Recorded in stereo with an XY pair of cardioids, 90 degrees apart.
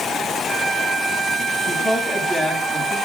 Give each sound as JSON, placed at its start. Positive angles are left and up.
{"t": 1.7, "sound": "a woman speaking", "azimuth_deg": 15, "distance_m": 7.5}